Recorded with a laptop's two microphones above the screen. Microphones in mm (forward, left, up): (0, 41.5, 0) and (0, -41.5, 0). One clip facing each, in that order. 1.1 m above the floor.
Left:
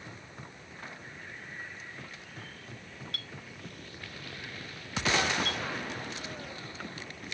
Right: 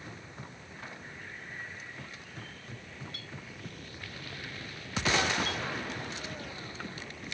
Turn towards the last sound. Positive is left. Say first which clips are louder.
# even
turn(degrees=75)  # may be behind; listen again after turning